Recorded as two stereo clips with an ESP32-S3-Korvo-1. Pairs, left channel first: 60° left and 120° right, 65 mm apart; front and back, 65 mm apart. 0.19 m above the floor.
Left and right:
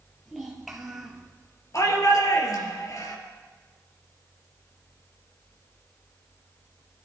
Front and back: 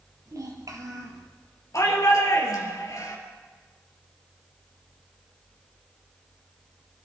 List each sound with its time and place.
0.3 s a child speaking: 150° left, 3.5 m
1.7 s a shout: 30° left, 3.5 m